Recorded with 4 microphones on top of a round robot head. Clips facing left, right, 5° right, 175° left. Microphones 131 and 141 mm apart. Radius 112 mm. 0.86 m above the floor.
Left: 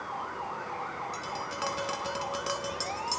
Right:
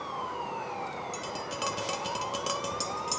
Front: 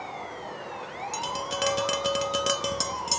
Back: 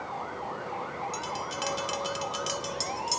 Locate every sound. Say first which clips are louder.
1.1 s tapping: even, front 3 dB; 20° right, 1.3 m